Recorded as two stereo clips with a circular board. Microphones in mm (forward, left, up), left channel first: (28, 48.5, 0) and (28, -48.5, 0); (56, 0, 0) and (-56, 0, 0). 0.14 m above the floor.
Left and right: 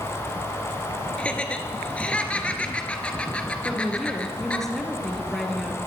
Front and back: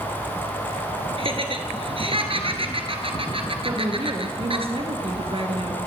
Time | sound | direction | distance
1.2 | laughter | 165° left | 2 m
3.6 | a woman speaking | 175° left | 3 m